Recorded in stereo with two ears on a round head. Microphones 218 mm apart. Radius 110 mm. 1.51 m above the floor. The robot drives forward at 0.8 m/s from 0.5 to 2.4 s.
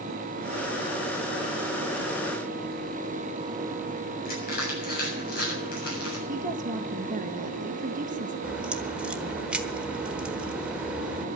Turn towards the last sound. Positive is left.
turn(degrees=-5)  # may be behind; listen again after turning